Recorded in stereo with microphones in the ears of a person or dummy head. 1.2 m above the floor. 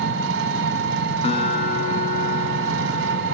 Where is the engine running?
65° right (ahead or behind), 2 m.